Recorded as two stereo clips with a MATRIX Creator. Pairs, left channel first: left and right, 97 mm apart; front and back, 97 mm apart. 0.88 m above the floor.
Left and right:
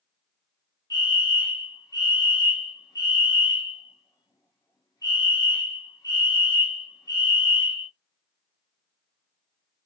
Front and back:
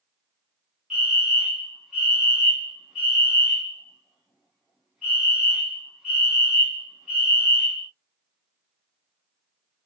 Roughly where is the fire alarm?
Left.